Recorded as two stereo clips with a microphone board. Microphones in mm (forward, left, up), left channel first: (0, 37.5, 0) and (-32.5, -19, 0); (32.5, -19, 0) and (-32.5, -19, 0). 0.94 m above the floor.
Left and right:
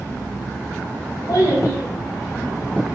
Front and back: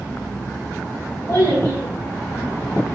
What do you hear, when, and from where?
1.3 s a child speaking: 40° left, 3.5 m